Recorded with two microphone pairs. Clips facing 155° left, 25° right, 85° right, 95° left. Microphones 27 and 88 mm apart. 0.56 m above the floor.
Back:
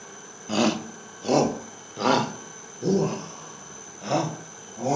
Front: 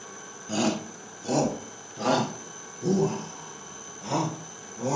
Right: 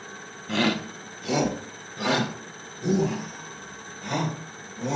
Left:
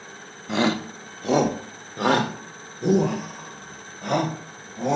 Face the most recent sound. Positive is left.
turn(degrees=110)